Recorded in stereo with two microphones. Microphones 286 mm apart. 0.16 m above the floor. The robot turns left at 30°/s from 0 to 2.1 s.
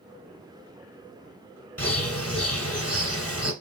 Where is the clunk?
No clunk in this recording.